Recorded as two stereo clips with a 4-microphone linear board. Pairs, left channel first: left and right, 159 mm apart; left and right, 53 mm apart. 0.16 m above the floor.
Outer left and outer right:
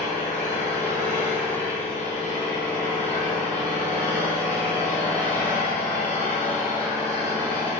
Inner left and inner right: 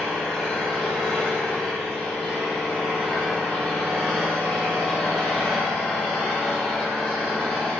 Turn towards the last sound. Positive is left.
turn(degrees=10)  # may be behind; listen again after turning